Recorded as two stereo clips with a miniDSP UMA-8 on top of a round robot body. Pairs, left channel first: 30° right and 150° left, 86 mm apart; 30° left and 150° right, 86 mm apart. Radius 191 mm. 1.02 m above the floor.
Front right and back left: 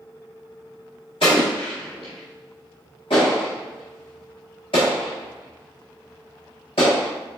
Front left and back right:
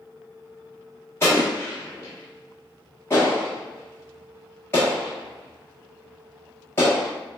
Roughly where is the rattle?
I don't hear a rattle.